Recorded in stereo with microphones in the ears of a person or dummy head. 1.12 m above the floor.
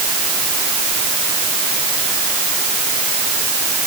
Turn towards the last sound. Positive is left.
No sound to turn to.